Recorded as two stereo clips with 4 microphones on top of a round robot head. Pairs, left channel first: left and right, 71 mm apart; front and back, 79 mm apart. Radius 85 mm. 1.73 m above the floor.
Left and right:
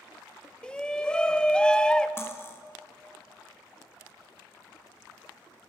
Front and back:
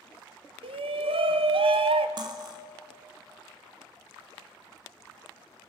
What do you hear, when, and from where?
0.6 s a shout: 170° left, 1.4 m
2.2 s cutlery clinking: 150° left, 2 m